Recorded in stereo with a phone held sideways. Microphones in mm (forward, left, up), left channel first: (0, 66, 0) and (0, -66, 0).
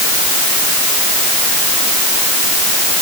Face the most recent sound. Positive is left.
No sound to turn to.